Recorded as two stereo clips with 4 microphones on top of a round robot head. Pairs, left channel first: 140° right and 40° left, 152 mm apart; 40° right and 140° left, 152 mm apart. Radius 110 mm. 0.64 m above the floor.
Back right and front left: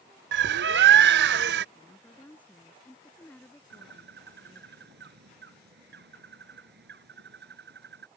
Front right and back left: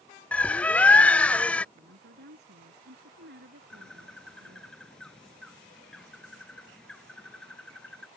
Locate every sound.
0.3 s a bird: 40° left
1.8 s a woman speaking: 140° left
3.7 s a bird: 45° left